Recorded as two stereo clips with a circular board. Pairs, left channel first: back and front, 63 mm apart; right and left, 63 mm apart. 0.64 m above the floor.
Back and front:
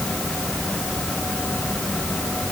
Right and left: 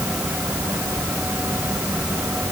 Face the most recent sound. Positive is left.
No sound to turn to.